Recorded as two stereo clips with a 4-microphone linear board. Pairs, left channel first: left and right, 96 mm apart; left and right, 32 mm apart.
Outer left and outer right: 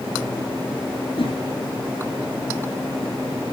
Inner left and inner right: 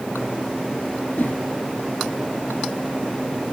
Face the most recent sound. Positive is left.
turn(degrees=70)  # may be behind; listen again after turning